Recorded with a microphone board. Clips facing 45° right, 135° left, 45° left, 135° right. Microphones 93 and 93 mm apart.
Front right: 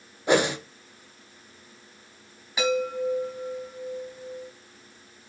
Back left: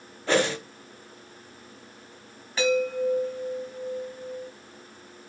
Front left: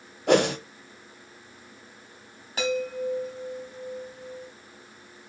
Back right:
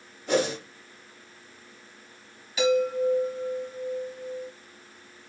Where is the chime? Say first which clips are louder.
Back left 2 dB, back right 5 dB; 30° left, 1.7 m.